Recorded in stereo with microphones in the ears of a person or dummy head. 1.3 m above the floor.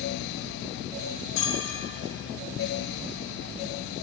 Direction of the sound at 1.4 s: 80° left.